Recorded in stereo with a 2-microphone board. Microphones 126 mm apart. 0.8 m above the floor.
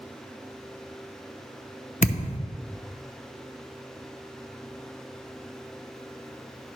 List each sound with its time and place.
2.0 s a thud: 75° left (ahead or behind), 0.6 m